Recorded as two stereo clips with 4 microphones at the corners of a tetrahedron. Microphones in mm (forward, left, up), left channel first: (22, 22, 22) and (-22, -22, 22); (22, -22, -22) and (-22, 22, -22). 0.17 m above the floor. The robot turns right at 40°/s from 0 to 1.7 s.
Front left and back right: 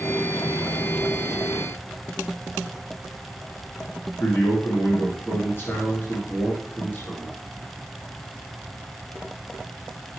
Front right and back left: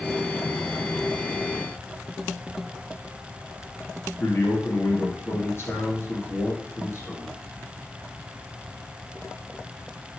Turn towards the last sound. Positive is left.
turn(degrees=0)